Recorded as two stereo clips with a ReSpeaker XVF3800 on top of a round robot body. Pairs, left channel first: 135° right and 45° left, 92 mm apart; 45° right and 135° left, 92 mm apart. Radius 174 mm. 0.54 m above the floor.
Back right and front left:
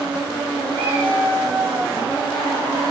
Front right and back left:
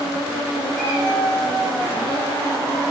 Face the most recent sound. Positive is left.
turn(degrees=50)